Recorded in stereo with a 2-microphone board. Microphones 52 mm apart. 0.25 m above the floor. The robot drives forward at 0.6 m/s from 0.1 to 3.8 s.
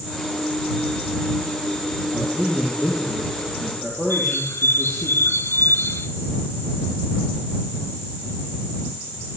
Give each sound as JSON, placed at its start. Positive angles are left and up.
{"t": 2.1, "sound": "a man speaking", "side_deg": 10, "distance_m": 10.0}
{"t": 4.1, "sound": "a bird", "side_deg": 60, "distance_m": 2.5}